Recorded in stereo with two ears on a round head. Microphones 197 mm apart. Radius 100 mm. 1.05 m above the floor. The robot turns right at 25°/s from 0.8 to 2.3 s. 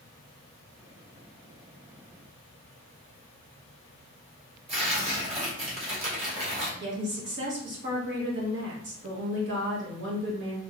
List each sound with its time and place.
4.7 s tearing paper: 30° right (ahead or behind), 1.1 m
6.8 s a woman speaking: 55° right (ahead or behind), 1.3 m